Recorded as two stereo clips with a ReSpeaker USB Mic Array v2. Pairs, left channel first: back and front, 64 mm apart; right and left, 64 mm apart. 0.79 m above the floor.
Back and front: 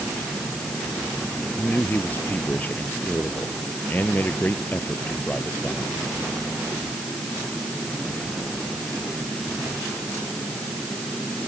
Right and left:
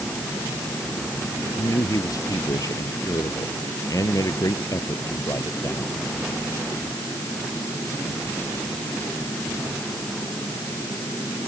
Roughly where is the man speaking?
Behind right.